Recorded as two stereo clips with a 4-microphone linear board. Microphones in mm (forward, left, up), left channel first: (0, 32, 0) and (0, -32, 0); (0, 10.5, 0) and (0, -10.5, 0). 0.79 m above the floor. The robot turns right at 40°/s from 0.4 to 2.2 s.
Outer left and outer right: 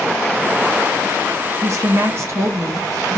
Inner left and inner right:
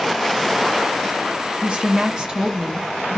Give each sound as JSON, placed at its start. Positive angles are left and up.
{"t": 1.6, "sound": "a woman speaking", "side_deg": -55, "distance_m": 0.7}